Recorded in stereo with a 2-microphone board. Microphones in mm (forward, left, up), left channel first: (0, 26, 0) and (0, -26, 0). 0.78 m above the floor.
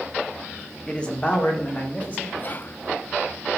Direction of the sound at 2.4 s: 40° left (ahead or behind).